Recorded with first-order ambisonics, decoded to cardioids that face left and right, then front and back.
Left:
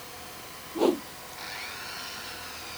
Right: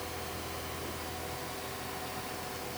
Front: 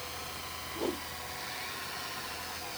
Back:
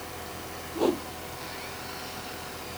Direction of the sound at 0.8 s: 120° left.